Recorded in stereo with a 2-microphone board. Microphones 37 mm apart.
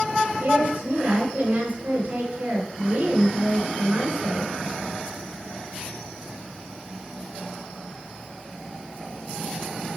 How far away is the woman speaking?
About 3 m.